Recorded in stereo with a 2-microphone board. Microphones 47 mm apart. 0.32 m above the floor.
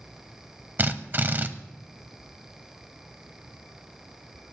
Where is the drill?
45° right (ahead or behind), 0.8 m.